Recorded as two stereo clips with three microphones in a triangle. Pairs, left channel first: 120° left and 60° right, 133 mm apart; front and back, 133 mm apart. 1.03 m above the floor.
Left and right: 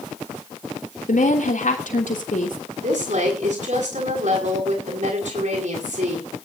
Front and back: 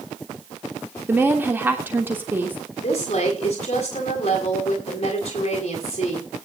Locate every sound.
1.1 s a woman speaking: 105° left, 3 m
2.8 s a woman speaking: 40° right, 8 m